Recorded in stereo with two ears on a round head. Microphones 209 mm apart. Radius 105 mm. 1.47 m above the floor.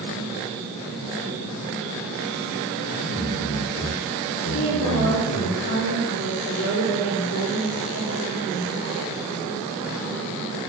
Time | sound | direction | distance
2.9 | a man speaking | 25° left (ahead or behind) | 3.5 m
4.5 | a woman speaking | 75° left (ahead or behind) | 3.5 m